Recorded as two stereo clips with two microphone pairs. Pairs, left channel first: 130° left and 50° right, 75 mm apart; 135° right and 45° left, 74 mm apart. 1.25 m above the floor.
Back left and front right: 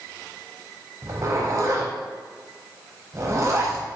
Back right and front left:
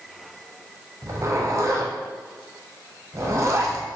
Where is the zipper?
5° right, 0.5 m.